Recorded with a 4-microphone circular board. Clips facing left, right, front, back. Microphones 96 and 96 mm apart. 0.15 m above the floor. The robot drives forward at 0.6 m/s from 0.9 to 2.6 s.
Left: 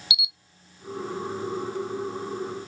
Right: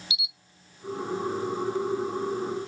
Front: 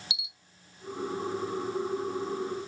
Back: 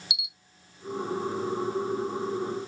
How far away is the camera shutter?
About 0.6 m.